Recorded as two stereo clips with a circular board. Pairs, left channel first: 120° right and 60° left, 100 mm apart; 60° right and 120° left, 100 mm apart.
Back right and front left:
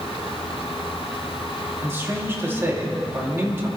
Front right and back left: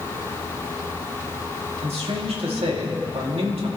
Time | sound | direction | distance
1.8 | a man speaking | 125° left | 2.5 m